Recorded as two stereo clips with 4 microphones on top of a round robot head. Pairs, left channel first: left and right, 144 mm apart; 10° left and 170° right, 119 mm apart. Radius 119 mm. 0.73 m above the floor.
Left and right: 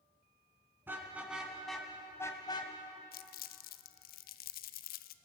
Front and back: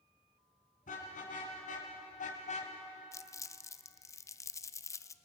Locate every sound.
0.9 s a car horn: 15° right, 3.5 m; by 2.7 s 35° left, 2.0 m
3.1 s crumpling: 75° left, 0.5 m